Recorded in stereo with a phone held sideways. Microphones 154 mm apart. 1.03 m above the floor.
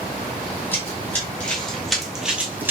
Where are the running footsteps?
15° left (ahead or behind), 1.8 m; by 2.7 s 15° right (ahead or behind), 1.0 m.